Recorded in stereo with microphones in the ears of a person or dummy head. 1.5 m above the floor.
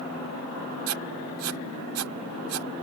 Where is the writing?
80° right.